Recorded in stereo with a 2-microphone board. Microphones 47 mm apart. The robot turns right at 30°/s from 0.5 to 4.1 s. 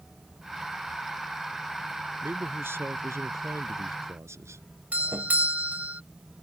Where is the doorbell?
35° right (ahead or behind).